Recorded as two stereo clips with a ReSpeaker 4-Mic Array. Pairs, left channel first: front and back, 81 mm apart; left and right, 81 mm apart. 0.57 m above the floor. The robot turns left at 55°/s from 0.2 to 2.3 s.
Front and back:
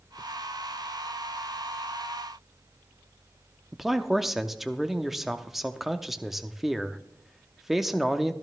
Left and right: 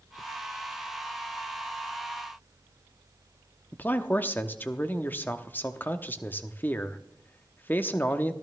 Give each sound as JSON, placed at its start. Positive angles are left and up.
{"t": 3.7, "sound": "a man speaking", "azimuth_deg": 100, "distance_m": 0.6}